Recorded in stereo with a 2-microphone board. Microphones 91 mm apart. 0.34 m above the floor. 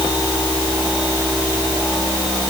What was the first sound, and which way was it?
Only background noise.